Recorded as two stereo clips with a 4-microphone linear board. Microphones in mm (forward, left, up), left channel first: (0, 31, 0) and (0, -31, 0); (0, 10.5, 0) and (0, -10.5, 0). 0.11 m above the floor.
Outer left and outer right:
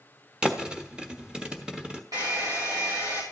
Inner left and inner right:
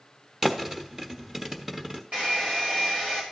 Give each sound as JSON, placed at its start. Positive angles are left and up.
{"t": 0.4, "sound": "a thud", "side_deg": -15, "distance_m": 1.0}
{"t": 2.1, "sound": "a hair dryer", "side_deg": -85, "distance_m": 3.5}